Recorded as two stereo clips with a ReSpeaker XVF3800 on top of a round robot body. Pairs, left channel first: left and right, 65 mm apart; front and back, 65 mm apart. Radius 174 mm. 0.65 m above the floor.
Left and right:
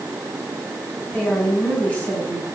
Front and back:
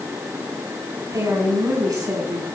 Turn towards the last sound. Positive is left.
turn(degrees=155)